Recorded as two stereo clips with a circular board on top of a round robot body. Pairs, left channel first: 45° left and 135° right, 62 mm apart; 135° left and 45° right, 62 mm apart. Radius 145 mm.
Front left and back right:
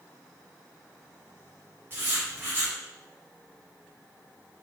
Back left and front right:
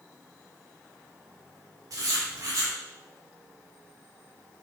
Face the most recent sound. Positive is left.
turn(degrees=-80)